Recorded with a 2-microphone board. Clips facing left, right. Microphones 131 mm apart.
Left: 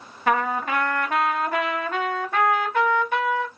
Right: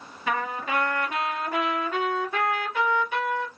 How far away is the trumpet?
About 1.1 m.